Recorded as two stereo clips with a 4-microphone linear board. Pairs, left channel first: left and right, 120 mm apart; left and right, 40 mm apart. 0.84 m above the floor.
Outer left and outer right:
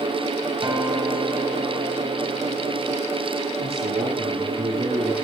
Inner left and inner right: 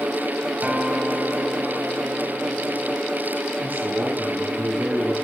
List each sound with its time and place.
0.6 s a guitar: 40° right (ahead or behind), 2.5 m
3.6 s a man speaking: 60° right (ahead or behind), 7 m